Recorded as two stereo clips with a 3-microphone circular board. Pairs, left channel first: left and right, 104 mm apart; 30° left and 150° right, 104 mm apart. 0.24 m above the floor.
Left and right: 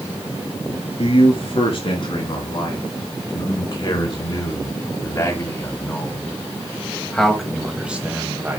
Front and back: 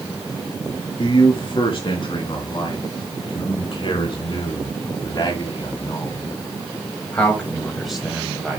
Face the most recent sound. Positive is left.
turn(degrees=-90)